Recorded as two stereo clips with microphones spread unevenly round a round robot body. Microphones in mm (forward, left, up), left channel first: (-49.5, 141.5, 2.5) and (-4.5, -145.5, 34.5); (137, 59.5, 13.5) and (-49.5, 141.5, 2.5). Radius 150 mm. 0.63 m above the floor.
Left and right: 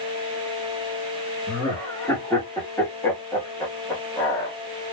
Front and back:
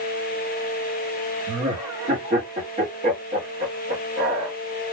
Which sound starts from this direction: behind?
Laughter, at 1.5 s.